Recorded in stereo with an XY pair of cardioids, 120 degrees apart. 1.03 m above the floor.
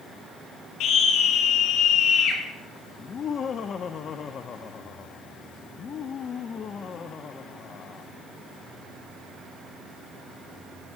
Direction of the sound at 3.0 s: 45° left.